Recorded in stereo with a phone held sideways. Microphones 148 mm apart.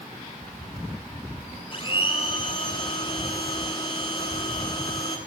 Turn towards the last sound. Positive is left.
turn(degrees=35)  # may be behind; listen again after turning